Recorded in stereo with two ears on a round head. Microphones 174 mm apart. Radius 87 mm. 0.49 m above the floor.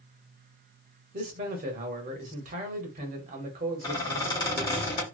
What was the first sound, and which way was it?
A man speaking, 45° right (ahead or behind).